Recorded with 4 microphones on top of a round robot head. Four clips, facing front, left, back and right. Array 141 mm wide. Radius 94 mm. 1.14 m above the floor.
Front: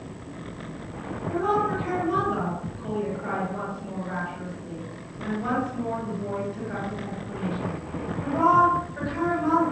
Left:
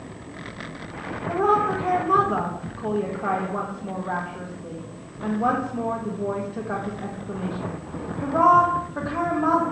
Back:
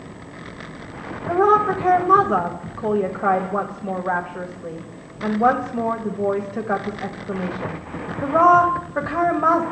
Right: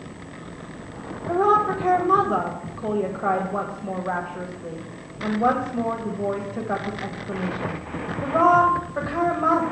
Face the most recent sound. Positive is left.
turn(degrees=180)